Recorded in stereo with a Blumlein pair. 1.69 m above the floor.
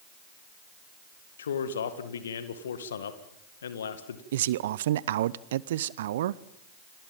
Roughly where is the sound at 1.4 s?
Ahead left.